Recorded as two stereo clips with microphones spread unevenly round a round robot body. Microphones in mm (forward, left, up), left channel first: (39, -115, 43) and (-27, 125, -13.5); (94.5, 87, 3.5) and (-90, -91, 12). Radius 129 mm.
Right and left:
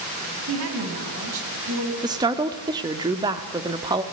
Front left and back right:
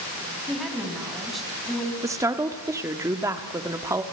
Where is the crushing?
I don't hear crushing.